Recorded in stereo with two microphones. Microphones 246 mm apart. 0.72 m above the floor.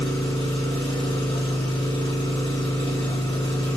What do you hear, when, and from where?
0.0 s an engine running: 20° left (ahead or behind), 3.5 m